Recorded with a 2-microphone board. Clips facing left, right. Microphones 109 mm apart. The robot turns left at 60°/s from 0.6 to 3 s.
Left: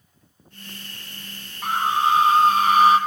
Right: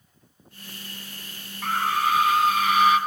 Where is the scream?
160° left, 1.2 m; by 3.0 s 75° left, 1.2 m.